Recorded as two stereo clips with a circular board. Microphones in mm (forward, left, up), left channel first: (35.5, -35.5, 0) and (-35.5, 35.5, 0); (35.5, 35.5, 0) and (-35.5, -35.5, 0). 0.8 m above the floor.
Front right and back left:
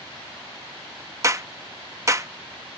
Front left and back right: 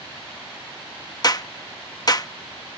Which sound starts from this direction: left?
A clap, at 1.2 s.